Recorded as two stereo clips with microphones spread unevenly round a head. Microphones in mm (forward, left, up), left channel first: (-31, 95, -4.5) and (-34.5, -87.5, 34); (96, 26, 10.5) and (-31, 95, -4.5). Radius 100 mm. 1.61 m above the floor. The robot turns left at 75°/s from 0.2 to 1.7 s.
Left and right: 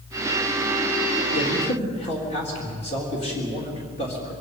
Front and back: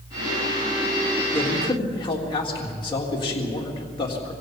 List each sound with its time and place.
1.3 s a man speaking: 55° left, 3.5 m; by 4.3 s 30° left, 3.5 m